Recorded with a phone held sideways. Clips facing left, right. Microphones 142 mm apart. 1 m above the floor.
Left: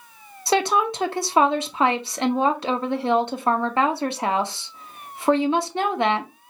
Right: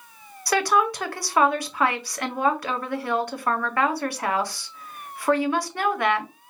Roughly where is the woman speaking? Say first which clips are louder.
Left 1 dB; left.